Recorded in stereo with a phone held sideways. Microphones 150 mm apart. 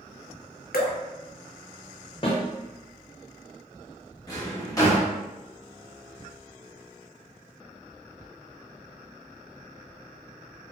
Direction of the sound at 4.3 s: 25° left (ahead or behind).